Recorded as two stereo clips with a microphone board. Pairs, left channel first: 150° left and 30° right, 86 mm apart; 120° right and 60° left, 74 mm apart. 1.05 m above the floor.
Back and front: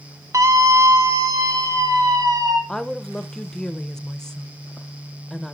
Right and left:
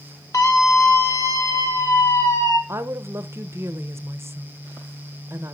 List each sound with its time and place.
0.3 s a scream: 80° right, 1.9 m; by 2.6 s 70° right, 3 m
2.7 s a woman speaking: 75° left, 0.8 m